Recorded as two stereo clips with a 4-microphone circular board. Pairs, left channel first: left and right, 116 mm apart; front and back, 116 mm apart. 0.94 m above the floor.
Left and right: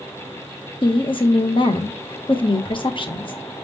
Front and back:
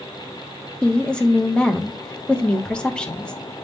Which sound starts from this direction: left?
A woman speaking, at 0.8 s.